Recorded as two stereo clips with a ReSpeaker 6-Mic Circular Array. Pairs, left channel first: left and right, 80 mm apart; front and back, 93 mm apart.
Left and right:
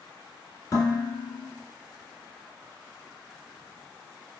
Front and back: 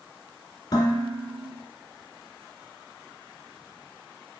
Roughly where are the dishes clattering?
Ahead left.